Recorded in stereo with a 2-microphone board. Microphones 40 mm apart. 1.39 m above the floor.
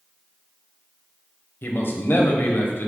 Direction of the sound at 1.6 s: 55° left (ahead or behind).